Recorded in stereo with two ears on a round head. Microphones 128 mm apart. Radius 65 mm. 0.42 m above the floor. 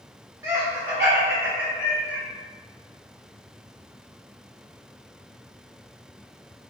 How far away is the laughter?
About 1.2 m.